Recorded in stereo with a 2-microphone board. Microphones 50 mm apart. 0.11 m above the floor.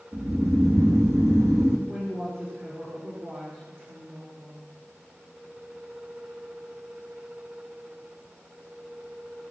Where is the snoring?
80° right, 3 m.